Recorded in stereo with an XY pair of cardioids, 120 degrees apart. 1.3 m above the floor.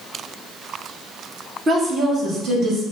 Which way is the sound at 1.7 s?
30° right.